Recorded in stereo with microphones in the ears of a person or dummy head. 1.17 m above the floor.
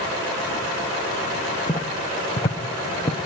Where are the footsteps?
15° left (ahead or behind), 1.3 m; by 3.2 s 20° left (ahead or behind), 1.6 m.